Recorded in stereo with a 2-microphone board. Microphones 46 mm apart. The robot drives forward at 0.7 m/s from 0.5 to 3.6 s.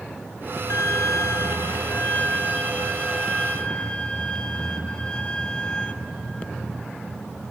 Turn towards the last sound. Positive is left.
turn(degrees=20)  # may be behind; listen again after turning